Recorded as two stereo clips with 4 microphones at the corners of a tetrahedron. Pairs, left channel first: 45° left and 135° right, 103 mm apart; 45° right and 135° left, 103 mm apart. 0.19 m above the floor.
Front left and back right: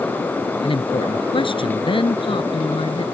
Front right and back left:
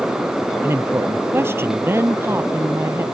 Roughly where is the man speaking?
Left.